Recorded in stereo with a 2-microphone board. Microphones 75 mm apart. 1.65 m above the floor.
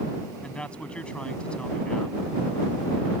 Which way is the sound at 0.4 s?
15° left (ahead or behind).